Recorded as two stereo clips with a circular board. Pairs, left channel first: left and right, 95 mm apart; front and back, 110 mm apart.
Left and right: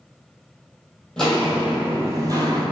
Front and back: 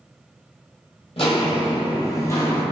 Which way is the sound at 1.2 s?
10° left.